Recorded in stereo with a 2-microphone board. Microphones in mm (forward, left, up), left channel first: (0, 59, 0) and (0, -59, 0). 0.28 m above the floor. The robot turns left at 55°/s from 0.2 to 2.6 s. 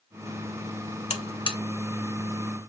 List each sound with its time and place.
1.1 s a buzzer: 70° left (ahead or behind), 0.7 m; by 1.6 s 40° left (ahead or behind), 0.7 m